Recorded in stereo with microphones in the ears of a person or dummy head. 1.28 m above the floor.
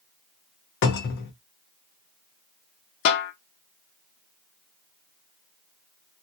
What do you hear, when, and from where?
0.8 s a cupboard door: 55° left (ahead or behind), 0.6 m
3.0 s a snare drum: 55° left (ahead or behind), 0.5 m